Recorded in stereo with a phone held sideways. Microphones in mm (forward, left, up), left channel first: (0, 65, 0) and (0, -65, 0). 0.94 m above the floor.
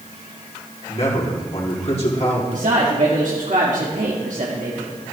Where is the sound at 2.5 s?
65° right (ahead or behind), 1.9 m.